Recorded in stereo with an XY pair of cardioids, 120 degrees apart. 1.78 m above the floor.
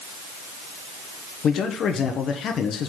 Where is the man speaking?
55° left, 1.0 m.